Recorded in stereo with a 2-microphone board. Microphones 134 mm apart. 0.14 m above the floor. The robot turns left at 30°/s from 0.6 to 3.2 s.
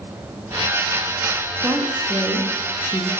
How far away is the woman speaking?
About 6.5 m.